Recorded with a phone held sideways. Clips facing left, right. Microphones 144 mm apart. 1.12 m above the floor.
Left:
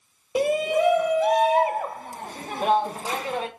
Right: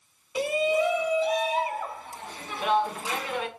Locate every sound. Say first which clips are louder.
0.3 s a shout: left 3 dB; 50° left (ahead or behind), 0.9 m; by 3.5 s 35° left (ahead or behind), 1.7 m